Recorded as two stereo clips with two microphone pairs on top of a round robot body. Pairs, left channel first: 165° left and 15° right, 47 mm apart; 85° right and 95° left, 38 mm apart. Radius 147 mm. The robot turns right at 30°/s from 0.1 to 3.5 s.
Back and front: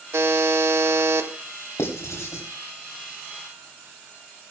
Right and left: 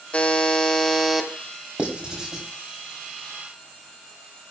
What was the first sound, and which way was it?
A buzzer, 35° right.